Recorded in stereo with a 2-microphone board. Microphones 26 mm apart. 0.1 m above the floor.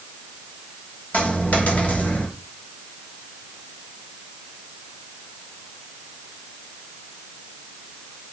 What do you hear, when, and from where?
1.1 s a dropped coin: 70° left (ahead or behind), 8 m